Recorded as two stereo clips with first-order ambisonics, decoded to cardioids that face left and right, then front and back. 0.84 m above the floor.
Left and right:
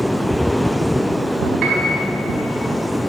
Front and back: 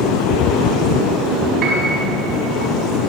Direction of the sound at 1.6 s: 130° right.